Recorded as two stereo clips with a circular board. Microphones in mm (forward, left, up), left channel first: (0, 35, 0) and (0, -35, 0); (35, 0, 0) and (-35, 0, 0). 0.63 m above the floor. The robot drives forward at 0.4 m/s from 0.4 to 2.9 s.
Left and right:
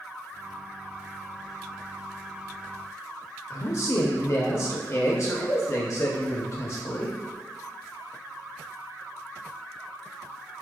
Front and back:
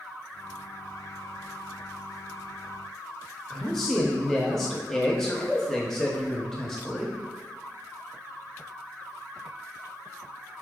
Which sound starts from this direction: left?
A man speaking, at 3.5 s.